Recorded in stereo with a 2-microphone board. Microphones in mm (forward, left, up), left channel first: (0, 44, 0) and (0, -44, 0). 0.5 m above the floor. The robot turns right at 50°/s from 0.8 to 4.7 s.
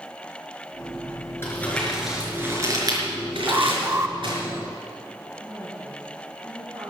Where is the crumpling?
25° left (ahead or behind), 4.5 m; by 4.4 s 55° right (ahead or behind), 4.5 m.